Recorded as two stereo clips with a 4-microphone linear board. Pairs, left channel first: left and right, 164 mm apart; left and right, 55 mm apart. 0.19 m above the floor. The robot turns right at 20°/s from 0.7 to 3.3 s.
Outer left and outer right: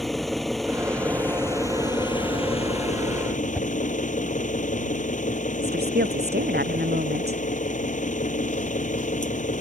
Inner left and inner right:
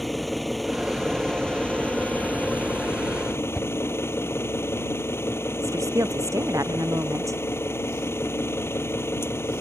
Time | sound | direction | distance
0.0 | an engine running | straight ahead | ?
3.5 | a whoosh | 10° right (ahead or behind) | ?
5.6 | a woman speaking | 80° right | ?